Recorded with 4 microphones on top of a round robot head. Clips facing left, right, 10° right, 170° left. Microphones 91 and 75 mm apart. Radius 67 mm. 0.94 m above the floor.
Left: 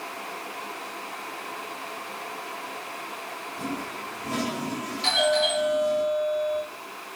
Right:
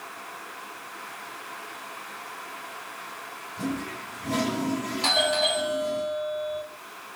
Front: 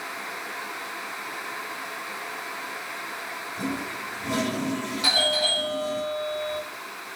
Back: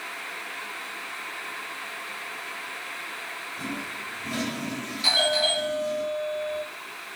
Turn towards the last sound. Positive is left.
turn(degrees=-50)